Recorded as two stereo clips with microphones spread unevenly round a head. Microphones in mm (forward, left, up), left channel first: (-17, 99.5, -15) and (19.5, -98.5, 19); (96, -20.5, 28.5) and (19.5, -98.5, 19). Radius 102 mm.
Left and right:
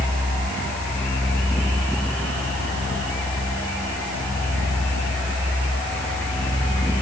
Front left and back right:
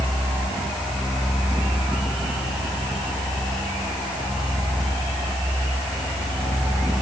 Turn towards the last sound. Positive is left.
No sound to turn to.